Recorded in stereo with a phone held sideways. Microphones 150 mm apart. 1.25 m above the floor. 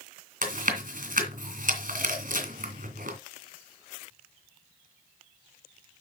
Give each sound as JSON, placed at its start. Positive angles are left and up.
{"t": 0.4, "sound": "chewing", "side_deg": -65, "distance_m": 2.5}